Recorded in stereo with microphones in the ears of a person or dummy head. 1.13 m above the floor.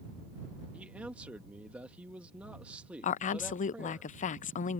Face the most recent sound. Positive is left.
turn(degrees=40)  # may be behind; listen again after turning